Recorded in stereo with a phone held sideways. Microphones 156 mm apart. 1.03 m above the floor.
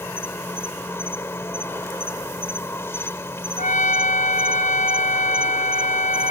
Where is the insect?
15° left (ahead or behind).